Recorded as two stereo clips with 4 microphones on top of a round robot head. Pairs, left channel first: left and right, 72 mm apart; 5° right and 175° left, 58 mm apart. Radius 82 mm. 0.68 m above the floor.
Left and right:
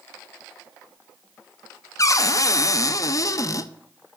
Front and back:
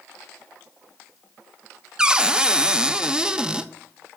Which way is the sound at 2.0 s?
100° left.